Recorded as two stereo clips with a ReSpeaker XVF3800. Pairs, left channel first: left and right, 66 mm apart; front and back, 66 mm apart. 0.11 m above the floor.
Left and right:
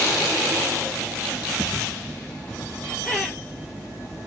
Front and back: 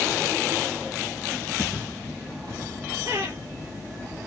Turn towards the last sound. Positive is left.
turn(degrees=175)